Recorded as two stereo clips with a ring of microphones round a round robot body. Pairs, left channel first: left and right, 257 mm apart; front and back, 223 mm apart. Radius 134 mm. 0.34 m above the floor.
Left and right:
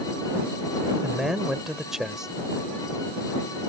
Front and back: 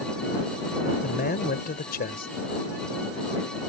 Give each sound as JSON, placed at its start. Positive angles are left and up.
{"t": 1.0, "sound": "a man speaking", "azimuth_deg": -5}